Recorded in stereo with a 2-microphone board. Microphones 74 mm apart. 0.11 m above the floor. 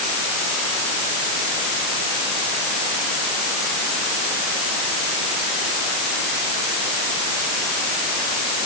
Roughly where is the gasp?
I don't hear a gasp.